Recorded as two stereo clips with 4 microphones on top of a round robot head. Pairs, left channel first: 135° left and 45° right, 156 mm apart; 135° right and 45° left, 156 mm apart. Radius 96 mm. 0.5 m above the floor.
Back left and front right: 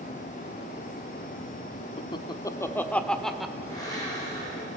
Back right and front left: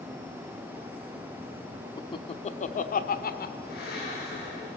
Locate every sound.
2.0 s laughter: 170° left, 1.0 m; by 3.5 s 135° right, 1.6 m
3.6 s a blender: 160° right, 7.5 m